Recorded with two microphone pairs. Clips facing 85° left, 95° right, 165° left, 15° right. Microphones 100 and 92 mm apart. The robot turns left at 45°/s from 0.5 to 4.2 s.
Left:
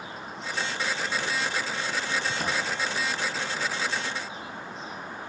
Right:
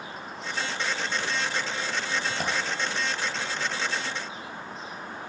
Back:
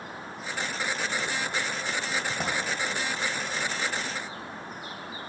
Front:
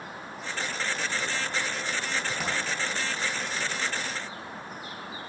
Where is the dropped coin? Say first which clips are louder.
Even, back 2 dB; 125° right, 2 m; by 2.5 s 135° right, 2 m.